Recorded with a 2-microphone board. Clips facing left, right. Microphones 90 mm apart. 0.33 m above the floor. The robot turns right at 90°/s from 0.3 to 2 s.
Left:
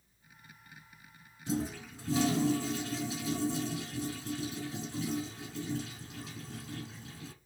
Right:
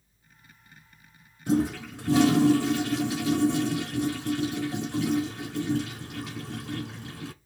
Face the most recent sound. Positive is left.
turn(degrees=-75)